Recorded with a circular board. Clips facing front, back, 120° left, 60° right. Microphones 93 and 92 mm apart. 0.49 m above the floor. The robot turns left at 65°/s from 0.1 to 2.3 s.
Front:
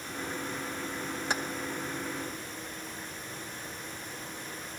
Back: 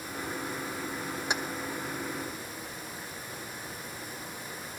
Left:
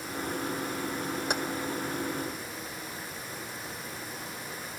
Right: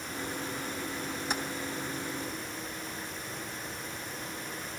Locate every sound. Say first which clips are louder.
1.3 s keys jangling: even, left 2 dB; 110° left, 1.5 m; by 1.4 s 100° left, 1.5 m